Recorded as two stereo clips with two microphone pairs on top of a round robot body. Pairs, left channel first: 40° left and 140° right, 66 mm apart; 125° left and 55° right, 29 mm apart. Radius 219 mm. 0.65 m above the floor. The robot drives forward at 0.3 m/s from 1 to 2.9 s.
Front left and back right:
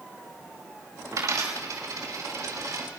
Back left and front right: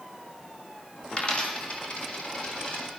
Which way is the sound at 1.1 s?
Straight behind.